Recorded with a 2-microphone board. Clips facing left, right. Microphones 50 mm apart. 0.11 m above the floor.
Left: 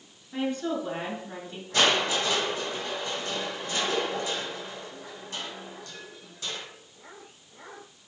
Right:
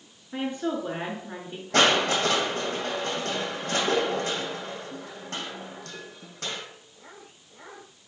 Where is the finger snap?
I don't hear a finger snap.